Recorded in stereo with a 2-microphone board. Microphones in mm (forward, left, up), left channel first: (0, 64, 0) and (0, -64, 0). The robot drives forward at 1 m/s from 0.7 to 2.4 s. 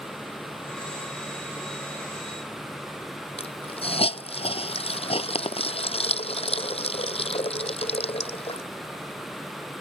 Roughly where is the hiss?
Left.